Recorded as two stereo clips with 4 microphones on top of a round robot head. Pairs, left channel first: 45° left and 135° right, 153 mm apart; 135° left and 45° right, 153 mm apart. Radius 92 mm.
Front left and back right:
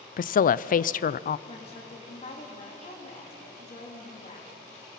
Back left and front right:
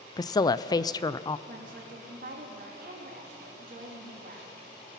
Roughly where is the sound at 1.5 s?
Ahead.